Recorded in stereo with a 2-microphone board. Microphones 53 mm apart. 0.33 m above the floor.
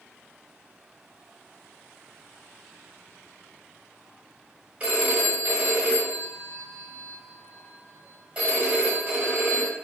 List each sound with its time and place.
4.8 s a phone ringing: 25° right (ahead or behind), 1.4 m